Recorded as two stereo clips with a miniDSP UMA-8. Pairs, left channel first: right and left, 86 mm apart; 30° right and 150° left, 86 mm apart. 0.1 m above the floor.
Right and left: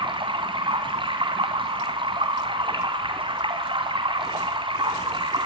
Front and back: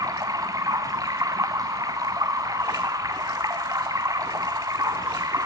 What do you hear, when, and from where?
0.0 s running water: 105° left, 2.5 m